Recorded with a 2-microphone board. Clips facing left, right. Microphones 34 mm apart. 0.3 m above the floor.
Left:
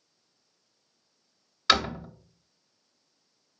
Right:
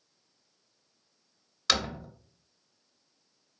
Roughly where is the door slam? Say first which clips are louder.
Left 5 dB; left.